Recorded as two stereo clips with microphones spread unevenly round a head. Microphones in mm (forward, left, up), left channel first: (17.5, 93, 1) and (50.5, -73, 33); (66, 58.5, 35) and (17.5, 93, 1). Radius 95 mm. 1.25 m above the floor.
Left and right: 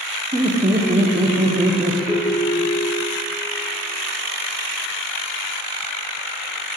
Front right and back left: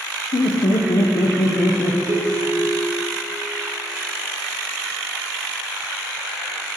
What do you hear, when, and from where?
0.3 s laughter: 10° right, 0.8 m
2.1 s a ringtone: 170° right, 0.8 m